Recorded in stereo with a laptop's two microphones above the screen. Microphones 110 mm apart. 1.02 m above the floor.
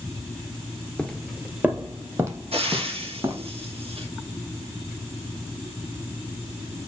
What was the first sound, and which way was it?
Footsteps, 10° left (ahead or behind).